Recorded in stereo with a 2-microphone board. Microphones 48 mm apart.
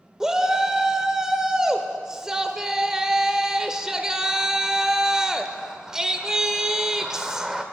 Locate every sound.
0.2 s a shout: 10° right (ahead or behind), 0.8 m